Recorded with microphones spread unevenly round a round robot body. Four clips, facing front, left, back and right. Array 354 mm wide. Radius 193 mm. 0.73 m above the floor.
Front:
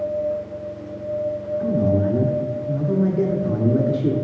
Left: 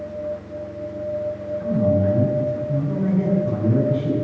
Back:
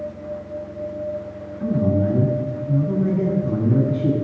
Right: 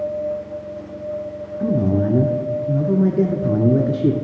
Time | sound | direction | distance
1.6 | a man speaking | 100° right | 1.4 m